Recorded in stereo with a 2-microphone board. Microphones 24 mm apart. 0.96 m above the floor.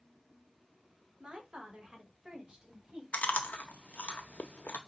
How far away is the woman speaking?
About 1.6 m.